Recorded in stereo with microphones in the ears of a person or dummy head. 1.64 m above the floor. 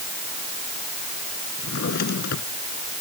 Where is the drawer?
55° left (ahead or behind).